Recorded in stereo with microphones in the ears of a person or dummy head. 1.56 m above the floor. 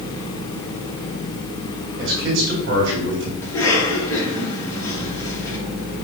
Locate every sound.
2.0 s a man speaking: 60° right (ahead or behind), 3 m
3.4 s a cough: 20° left (ahead or behind), 3 m